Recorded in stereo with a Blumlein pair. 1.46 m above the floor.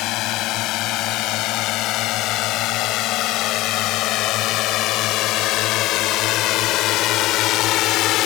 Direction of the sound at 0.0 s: 40° left.